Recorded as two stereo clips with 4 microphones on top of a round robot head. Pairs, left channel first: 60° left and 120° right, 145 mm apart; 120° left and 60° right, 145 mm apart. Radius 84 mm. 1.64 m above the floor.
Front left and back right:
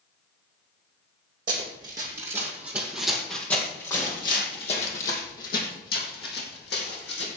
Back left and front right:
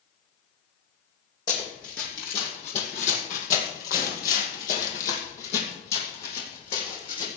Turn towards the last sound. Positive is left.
turn(degrees=65)